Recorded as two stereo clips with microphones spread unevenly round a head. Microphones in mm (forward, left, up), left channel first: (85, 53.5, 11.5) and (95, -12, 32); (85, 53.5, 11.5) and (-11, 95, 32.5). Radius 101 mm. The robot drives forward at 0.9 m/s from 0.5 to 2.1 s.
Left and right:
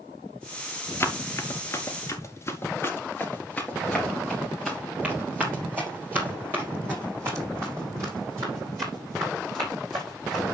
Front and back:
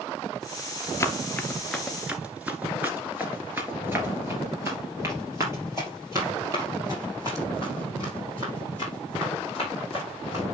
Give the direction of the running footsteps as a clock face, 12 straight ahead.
11 o'clock.